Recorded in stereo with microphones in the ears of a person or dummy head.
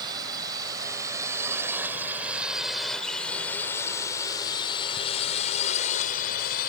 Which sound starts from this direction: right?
A drone, at 0.0 s.